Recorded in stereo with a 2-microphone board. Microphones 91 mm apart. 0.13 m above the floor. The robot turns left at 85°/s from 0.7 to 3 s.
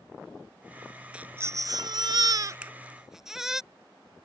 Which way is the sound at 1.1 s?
15° right.